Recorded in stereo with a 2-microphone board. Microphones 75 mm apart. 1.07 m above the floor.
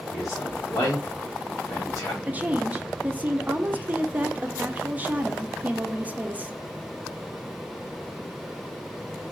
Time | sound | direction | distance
0.1 | a man speaking | 50° left (ahead or behind) | 1.4 m
2.3 | a woman speaking | 20° right (ahead or behind) | 0.6 m